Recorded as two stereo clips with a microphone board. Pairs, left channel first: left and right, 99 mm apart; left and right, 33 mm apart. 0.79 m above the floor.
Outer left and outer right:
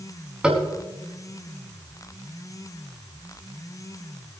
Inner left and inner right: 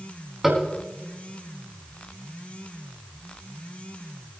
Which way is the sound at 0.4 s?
10° right (ahead or behind).